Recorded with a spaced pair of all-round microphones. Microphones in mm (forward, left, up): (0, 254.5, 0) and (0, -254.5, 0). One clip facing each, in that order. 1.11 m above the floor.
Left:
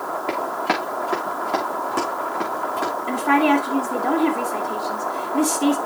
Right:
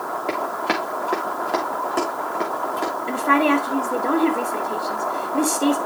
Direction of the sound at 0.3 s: 15° left (ahead or behind).